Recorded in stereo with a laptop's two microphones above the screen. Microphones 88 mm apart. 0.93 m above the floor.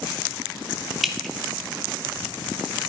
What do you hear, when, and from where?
1.0 s dripping: centre (ahead or behind), 0.9 m